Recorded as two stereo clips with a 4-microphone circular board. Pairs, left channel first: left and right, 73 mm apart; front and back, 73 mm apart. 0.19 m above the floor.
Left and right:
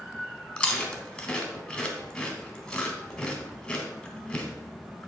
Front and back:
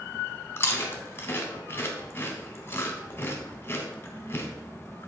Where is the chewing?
20° left, 1.7 m.